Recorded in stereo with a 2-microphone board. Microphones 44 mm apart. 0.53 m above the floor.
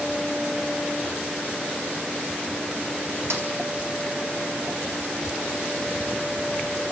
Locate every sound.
3.3 s a snare drum: 75° right (ahead or behind), 5 m